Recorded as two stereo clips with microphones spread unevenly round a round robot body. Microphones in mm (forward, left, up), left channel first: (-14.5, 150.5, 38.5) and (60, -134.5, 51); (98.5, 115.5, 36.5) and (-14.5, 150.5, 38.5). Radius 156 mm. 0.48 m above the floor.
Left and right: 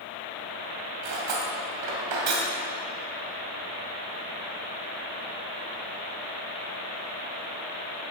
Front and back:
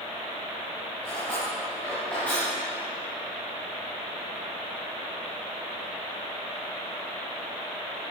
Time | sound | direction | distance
1.0 | cutlery clinking | 100° right | 2 m